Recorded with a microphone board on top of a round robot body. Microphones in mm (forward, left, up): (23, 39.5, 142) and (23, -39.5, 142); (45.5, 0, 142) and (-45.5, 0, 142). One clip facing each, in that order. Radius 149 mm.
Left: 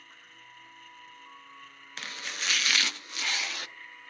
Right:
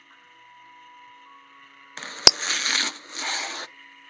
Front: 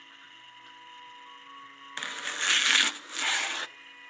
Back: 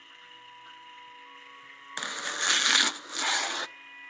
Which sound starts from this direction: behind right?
Chopping, at 2.0 s.